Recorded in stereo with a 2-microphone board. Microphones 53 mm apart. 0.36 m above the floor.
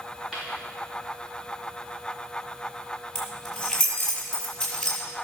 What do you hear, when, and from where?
0.3 s a dropped coin: 5° right (ahead or behind), 4.5 m
3.1 s keys jangling: 5° left (ahead or behind), 6 m